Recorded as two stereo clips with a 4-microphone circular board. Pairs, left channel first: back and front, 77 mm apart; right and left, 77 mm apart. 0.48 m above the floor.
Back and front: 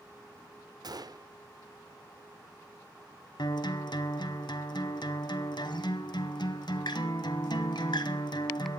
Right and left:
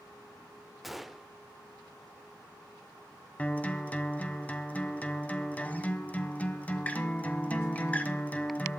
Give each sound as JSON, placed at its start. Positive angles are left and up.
{"t": 0.8, "sound": "a gunshot", "azimuth_deg": 0, "distance_m": 0.6}
{"t": 3.4, "sound": "a guitar", "azimuth_deg": -160, "distance_m": 1.4}